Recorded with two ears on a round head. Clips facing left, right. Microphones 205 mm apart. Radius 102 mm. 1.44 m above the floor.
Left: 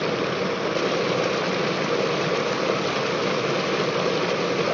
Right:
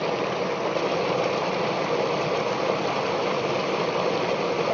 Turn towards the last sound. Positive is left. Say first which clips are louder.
# left 1 dB
turn(degrees=20)  # may be behind; listen again after turning